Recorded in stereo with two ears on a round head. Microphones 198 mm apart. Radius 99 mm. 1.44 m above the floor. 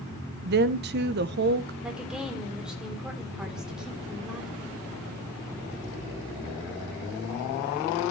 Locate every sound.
0.5 s a woman speaking: 50° right (ahead or behind), 0.9 m
1.8 s a woman speaking: 5° right (ahead or behind), 4 m